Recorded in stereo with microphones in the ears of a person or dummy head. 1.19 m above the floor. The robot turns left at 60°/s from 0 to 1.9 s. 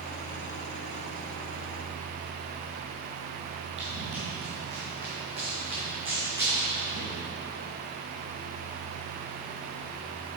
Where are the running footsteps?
35° right (ahead or behind), 2.5 m; by 7.1 s 25° right (ahead or behind), 4.5 m.